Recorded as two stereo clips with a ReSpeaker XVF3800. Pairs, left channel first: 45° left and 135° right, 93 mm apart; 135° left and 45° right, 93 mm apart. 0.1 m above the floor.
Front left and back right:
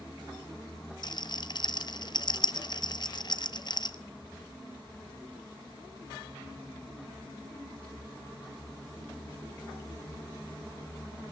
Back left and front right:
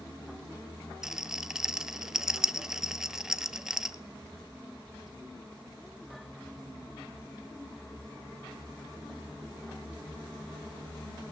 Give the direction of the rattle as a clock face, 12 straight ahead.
11 o'clock.